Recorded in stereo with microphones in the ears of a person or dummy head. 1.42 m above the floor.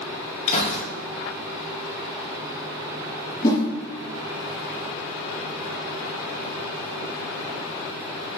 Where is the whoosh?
25° left (ahead or behind), 0.8 m.